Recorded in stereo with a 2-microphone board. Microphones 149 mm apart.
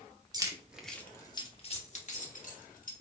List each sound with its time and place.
0.3 s keys jangling: 25° right (ahead or behind), 0.8 m; by 2.9 s 65° left (ahead or behind), 1.7 m